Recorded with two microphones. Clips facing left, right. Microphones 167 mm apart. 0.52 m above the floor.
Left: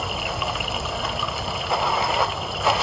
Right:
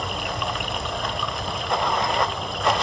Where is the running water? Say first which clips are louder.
Even; 5° left (ahead or behind), 0.7 m.